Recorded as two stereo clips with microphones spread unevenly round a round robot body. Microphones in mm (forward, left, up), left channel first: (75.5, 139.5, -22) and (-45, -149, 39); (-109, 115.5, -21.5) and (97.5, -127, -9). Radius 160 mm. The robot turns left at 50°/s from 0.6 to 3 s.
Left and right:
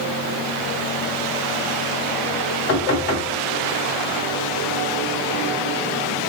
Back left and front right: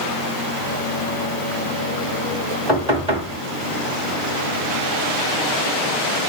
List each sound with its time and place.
2.7 s knocking: 40° left, 2.5 m; by 3.4 s 25° left, 2.5 m